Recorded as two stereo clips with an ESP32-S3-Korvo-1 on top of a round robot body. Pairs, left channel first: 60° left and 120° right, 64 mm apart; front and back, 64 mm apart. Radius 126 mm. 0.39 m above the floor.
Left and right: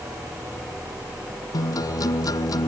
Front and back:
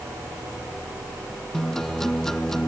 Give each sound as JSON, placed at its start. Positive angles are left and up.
{"t": 1.5, "sound": "a guitar", "azimuth_deg": 85}